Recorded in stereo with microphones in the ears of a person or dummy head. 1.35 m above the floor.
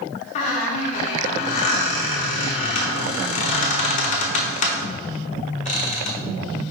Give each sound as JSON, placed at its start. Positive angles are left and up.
{"t": 0.3, "sound": "a squeak", "side_deg": 45, "distance_m": 0.9}